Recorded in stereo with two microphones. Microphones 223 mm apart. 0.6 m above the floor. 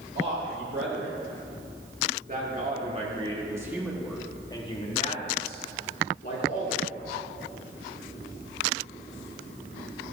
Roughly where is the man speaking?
Right.